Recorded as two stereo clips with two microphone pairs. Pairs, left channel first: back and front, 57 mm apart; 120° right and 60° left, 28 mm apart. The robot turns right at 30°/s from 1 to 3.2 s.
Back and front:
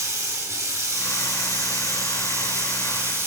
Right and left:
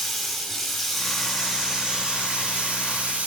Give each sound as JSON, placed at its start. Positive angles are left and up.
{"t": 0.0, "sound": "running water", "azimuth_deg": -25, "distance_m": 2.5}